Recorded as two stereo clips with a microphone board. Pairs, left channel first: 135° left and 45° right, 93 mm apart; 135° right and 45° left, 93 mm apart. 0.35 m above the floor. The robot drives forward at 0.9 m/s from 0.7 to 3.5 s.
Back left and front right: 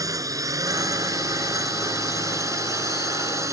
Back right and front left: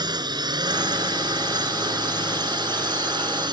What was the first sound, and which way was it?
A drone, 5° left.